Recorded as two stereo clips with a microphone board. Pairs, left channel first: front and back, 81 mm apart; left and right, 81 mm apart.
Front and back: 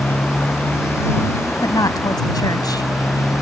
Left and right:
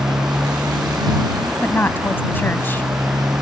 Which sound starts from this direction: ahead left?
A woman speaking, at 1.6 s.